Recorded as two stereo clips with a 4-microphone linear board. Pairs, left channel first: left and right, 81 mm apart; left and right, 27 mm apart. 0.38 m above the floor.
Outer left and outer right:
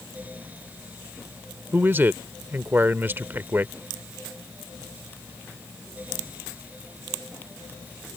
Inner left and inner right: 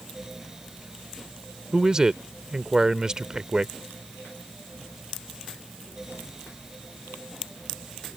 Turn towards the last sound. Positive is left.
turn(degrees=-25)  # may be behind; listen again after turning